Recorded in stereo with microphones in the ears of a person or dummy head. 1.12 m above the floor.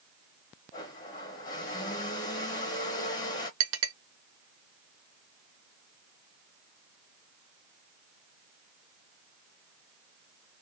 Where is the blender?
15° left (ahead or behind), 0.7 m.